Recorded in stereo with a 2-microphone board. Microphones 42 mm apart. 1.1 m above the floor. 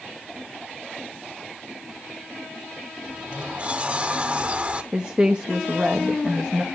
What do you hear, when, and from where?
3.0 s a sliding door: 30° right (ahead or behind), 1.0 m
4.9 s a woman speaking: 30° right (ahead or behind), 1.0 m